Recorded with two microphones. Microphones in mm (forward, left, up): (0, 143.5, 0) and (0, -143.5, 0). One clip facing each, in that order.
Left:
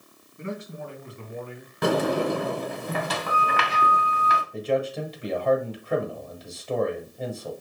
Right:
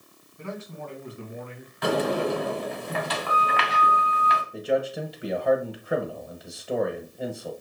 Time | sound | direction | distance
0.4 | a man speaking | 25° left (ahead or behind) | 1.9 m
1.8 | a sliding door | 50° left (ahead or behind) | 0.9 m
4.5 | a man speaking | 10° right (ahead or behind) | 1.0 m